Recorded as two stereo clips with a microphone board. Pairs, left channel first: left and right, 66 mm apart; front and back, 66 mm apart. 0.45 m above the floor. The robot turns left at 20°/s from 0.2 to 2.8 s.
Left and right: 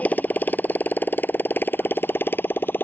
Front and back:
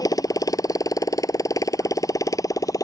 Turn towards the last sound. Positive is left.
turn(degrees=30)